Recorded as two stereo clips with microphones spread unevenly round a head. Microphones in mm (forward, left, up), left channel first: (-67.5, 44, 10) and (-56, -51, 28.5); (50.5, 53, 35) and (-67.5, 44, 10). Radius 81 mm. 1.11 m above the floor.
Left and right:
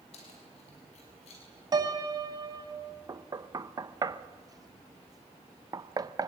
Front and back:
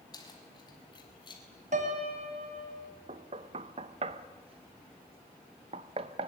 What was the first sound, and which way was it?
Keys jangling, 60° left.